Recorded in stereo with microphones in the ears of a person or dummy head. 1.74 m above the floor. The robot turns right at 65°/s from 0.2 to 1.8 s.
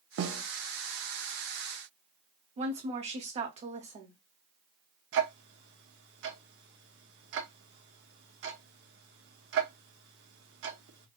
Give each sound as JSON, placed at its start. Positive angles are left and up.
{"t": 0.2, "sound": "a snare drum", "side_deg": -65, "distance_m": 0.7}
{"t": 2.6, "sound": "a woman speaking", "side_deg": -35, "distance_m": 0.9}
{"t": 5.1, "sound": "ticking", "side_deg": -65, "distance_m": 1.0}